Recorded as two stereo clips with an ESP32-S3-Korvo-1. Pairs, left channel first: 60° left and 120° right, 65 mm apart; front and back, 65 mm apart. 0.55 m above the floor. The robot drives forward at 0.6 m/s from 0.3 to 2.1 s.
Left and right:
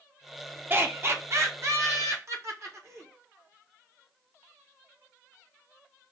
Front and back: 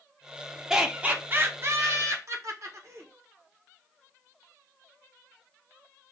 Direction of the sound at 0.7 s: 100° right.